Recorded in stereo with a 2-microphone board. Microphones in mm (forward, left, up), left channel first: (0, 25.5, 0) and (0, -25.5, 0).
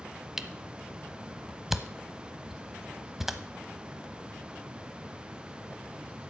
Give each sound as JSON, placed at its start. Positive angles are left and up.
{"t": 0.4, "sound": "a camera shutter", "side_deg": -5, "distance_m": 0.8}